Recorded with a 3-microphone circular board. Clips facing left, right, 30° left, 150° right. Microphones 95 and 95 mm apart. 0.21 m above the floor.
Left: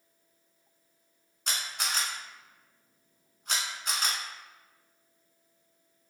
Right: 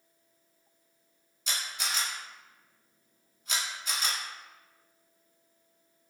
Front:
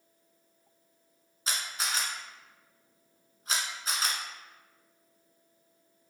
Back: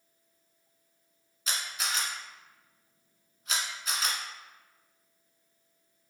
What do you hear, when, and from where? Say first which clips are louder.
1.5 s a camera shutter: left 1 dB, even; 80° left, 0.9 m